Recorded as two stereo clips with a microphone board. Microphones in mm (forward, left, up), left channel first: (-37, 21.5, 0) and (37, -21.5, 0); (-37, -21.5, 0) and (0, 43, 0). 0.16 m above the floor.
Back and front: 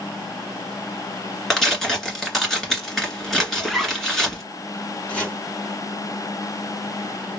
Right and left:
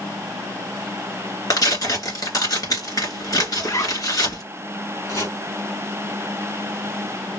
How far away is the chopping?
About 2 m.